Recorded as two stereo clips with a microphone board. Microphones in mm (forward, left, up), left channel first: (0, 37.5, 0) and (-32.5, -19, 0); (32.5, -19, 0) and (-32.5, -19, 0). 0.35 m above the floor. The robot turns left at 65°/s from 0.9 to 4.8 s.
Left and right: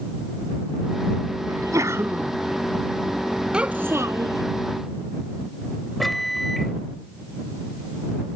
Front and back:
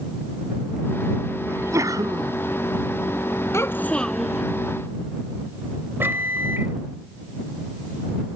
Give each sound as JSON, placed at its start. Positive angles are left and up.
{"t": 1.5, "sound": "a sneeze", "azimuth_deg": -130}
{"t": 3.5, "sound": "a child speaking", "azimuth_deg": -45}
{"t": 6.0, "sound": "a microwave", "azimuth_deg": 145}